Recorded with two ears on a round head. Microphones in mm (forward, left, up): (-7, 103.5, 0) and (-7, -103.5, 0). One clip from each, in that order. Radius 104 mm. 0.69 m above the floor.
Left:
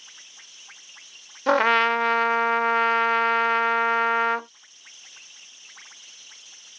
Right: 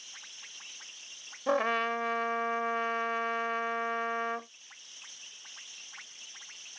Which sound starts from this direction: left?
A trumpet, at 1.5 s.